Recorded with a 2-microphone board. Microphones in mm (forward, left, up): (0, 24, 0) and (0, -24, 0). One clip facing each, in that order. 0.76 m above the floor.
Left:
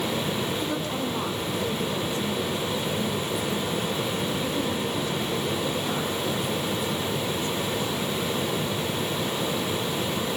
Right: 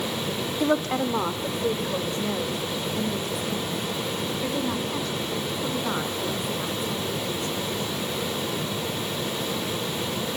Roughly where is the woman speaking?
Right.